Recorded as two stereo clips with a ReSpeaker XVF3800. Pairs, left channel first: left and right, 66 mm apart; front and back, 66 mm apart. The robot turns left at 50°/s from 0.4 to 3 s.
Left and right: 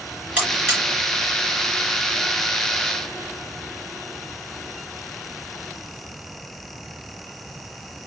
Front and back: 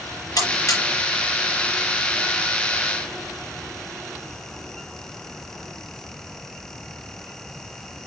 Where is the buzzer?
25° right, 6 m; by 0.8 s 45° right, 6 m.